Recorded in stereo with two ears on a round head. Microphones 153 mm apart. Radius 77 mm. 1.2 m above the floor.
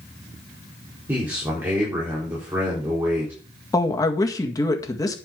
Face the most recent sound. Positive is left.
turn(degrees=20)  # may be behind; listen again after turning